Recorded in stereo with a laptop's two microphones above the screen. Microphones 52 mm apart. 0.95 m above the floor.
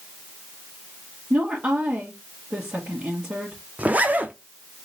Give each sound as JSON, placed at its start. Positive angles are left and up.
{"t": 1.3, "sound": "a woman speaking", "side_deg": -35, "distance_m": 1.7}
{"t": 3.8, "sound": "a zipper", "side_deg": -30, "distance_m": 0.6}